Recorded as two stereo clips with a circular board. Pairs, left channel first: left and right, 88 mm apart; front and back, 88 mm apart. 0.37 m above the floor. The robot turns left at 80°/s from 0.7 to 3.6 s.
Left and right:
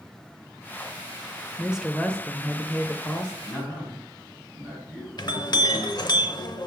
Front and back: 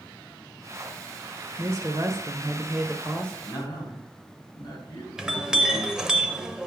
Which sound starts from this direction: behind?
A woman speaking, at 1.6 s.